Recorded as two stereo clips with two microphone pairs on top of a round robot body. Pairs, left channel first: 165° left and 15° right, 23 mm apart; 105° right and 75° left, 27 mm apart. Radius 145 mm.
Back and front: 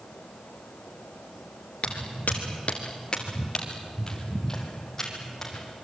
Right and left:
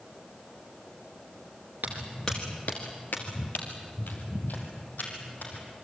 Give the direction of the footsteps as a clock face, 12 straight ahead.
9 o'clock.